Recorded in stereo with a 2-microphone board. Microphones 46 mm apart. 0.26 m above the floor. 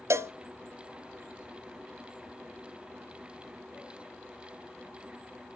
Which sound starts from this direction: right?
A cowbell, at 0.1 s.